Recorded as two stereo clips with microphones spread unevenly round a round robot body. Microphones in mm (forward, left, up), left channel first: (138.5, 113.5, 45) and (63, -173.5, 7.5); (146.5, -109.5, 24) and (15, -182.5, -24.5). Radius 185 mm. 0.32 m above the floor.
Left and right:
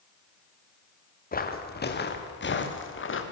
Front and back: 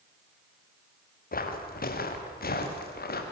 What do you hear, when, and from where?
1.3 s footsteps: 15° left, 4.5 m; by 3.2 s 25° left, 5 m